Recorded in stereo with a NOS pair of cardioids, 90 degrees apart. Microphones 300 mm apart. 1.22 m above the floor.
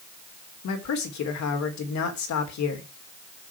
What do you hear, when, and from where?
0.6 s a man speaking: 65° left, 3.5 m